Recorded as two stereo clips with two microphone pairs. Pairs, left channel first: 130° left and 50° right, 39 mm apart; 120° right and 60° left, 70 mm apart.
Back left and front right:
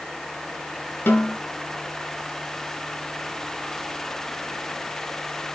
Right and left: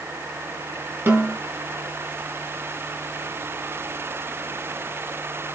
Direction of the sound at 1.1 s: 115° left.